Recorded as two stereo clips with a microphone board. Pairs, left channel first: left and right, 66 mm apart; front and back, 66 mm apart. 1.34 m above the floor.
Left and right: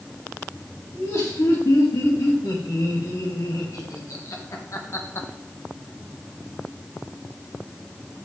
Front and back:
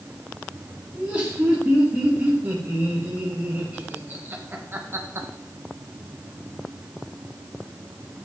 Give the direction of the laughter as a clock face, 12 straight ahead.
8 o'clock.